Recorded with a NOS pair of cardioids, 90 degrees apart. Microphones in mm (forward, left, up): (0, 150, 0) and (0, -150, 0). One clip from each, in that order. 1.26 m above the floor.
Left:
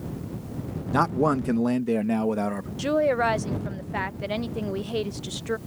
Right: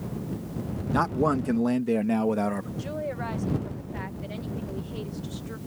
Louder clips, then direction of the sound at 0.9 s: Left 2 dB; 20° left.